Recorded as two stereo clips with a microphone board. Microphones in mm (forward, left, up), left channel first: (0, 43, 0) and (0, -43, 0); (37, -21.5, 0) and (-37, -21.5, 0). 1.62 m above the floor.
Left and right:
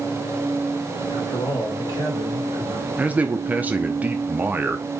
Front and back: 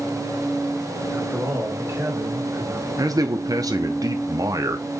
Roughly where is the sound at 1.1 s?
Behind left.